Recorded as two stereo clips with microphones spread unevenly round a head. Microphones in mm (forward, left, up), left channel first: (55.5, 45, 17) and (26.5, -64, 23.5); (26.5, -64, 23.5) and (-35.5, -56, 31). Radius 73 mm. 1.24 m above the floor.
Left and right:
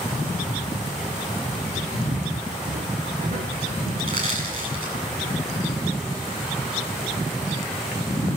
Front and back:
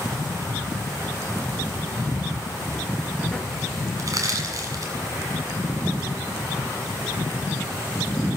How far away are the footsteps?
About 3 m.